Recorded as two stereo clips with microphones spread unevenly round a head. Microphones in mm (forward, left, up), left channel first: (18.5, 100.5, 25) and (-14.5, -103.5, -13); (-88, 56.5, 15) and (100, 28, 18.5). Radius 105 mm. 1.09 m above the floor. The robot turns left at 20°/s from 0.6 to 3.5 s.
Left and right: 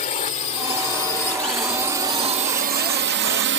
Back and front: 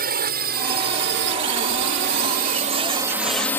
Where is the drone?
25° left; by 3.6 s 110° right.